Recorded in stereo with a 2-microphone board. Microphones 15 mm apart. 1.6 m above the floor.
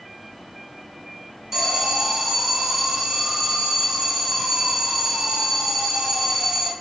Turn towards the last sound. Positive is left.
turn(degrees=-30)  # may be behind; listen again after turning